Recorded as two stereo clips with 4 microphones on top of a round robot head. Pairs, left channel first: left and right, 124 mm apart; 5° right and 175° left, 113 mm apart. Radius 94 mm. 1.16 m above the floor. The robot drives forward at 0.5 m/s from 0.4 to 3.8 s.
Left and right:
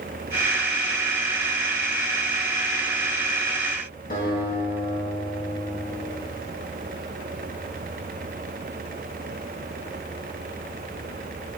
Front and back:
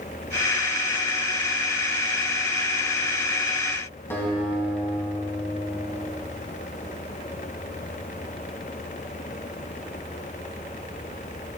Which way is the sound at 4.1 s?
65° left.